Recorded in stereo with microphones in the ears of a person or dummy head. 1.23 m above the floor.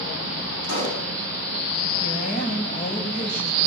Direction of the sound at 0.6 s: 75° left (ahead or behind).